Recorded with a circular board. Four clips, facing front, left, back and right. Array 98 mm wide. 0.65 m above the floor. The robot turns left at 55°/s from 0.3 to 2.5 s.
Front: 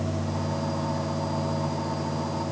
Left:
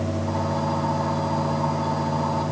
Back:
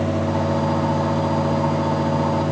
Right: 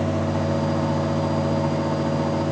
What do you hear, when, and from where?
Only background noise.